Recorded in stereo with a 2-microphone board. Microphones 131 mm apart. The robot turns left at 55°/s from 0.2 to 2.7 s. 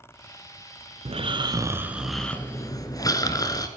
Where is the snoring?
120° right, 0.8 m; by 3.7 s 150° left, 0.8 m.